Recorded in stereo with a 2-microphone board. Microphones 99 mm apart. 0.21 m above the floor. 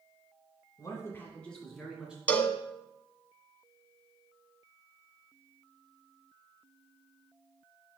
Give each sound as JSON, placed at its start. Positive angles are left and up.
{"t": 0.8, "sound": "a man speaking", "side_deg": 35, "distance_m": 1.7}
{"t": 2.3, "sound": "a cowbell", "side_deg": 15, "distance_m": 0.6}